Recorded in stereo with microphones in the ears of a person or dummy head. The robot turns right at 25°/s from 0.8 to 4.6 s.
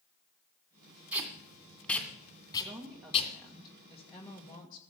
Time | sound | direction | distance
1.1 | tape being pulled | 10° right (ahead or behind) | 2 m
2.6 | a woman speaking | 25° right | 1.7 m